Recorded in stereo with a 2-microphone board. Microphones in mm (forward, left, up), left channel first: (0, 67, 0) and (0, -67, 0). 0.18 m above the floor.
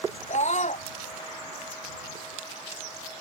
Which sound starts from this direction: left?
A scream, at 0.3 s.